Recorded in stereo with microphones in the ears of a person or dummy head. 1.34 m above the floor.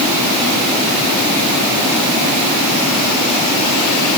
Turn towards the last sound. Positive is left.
No sound to turn to.